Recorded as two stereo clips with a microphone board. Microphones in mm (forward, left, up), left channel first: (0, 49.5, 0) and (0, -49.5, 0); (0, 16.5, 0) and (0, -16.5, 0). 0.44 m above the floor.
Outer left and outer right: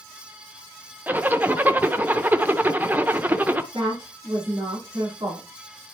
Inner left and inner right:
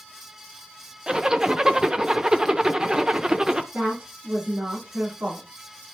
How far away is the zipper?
About 0.6 m.